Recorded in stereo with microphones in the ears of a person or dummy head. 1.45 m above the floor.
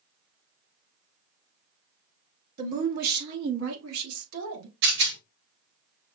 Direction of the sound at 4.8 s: 60° right (ahead or behind).